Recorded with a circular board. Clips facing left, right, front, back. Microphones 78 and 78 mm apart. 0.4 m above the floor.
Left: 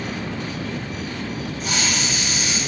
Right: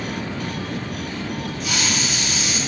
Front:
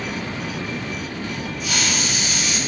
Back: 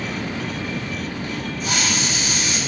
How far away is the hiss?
About 8.5 m.